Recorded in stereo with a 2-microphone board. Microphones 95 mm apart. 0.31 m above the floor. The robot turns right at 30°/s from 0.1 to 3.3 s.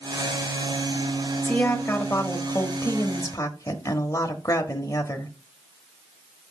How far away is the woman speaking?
About 1.0 m.